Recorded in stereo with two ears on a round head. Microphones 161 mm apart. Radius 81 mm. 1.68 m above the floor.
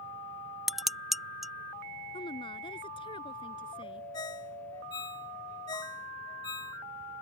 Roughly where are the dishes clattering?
Centre.